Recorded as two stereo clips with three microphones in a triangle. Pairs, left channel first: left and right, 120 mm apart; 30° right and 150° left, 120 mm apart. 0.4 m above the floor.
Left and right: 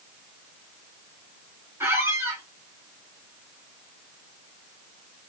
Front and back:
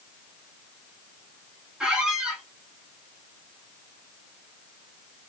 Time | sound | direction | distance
1.8 | a squeak | 135° right | 0.6 m